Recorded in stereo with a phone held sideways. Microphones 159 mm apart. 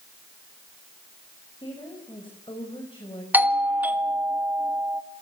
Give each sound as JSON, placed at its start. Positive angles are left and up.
{"t": 1.6, "sound": "a woman speaking", "side_deg": 30, "distance_m": 5.0}
{"t": 3.3, "sound": "a doorbell", "side_deg": -10, "distance_m": 1.7}